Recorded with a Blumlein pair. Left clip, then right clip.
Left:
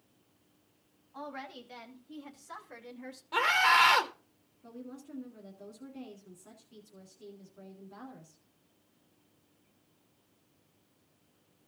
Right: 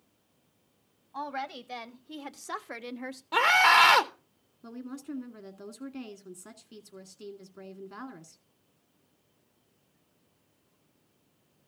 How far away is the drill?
No drill in this recording.